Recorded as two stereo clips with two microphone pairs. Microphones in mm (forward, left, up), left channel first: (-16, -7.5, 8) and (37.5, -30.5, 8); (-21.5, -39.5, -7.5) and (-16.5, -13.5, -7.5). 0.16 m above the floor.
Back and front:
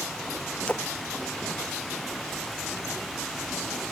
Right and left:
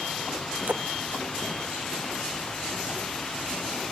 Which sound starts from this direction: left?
A splash, at 0.7 s.